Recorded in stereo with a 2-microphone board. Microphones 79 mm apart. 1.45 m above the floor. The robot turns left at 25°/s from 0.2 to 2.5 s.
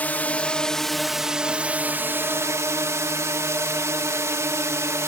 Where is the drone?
20° left; by 5.1 s 35° right.